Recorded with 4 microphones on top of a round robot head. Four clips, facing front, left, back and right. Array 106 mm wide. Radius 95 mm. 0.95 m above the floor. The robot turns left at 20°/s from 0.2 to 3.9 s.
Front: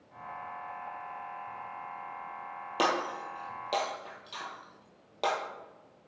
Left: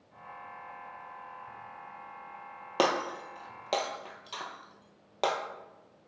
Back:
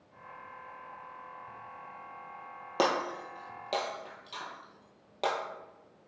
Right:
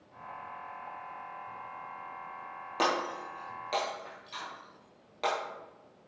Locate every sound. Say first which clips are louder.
2.8 s breaking glass: left 2 dB, even; 115° left, 1.1 m; by 5.3 s 90° left, 1.1 m